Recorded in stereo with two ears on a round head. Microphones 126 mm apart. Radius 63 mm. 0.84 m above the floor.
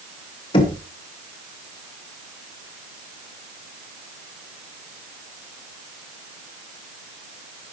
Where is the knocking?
40° left (ahead or behind), 1.1 m.